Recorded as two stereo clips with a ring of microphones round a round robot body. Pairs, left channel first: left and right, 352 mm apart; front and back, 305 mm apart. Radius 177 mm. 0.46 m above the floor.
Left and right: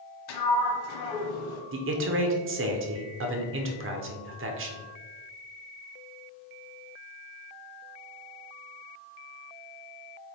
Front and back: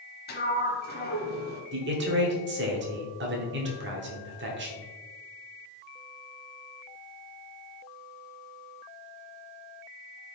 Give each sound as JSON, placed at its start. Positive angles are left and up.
{"t": 0.3, "sound": "a sliding door", "azimuth_deg": 60, "distance_m": 1.3}
{"t": 1.7, "sound": "a man speaking", "azimuth_deg": -135, "distance_m": 1.1}